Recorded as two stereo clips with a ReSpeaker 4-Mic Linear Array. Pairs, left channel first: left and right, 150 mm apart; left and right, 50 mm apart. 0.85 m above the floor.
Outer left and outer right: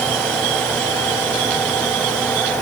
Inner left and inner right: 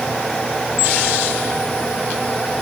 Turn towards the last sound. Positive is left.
No sound to turn to.